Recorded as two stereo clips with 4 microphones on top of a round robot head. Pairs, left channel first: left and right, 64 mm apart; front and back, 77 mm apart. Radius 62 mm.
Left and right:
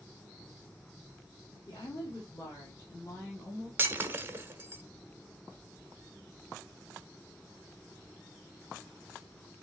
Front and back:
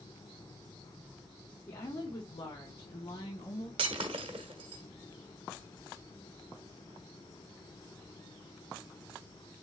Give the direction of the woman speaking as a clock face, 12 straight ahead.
11 o'clock.